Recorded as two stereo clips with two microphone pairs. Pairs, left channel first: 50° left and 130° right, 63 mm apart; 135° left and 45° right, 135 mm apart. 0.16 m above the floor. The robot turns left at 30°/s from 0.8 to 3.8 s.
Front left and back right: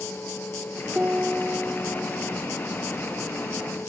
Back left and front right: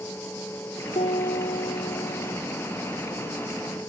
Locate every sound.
0.9 s a piano: 165° left, 2 m; by 2.4 s 120° left, 2 m